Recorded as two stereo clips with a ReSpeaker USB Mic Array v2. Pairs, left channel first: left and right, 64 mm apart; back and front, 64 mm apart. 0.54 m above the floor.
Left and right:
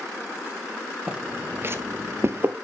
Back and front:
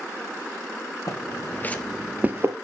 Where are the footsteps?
160° right, 1.1 m; by 2.5 s 40° right, 0.9 m.